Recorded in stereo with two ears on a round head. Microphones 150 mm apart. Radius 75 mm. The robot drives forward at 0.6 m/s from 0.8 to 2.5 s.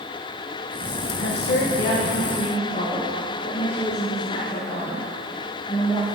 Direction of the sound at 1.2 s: 75° left (ahead or behind).